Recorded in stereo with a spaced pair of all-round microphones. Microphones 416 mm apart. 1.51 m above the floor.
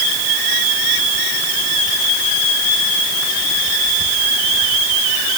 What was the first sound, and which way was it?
Only background noise.